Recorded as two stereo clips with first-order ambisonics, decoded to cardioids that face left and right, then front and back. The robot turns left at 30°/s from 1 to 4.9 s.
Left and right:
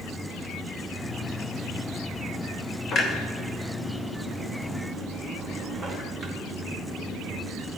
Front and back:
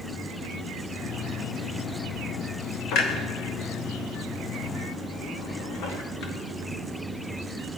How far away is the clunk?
About 1.0 m.